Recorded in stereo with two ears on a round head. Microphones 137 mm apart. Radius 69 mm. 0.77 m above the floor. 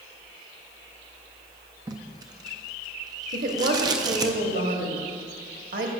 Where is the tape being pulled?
25° right (ahead or behind), 0.6 m.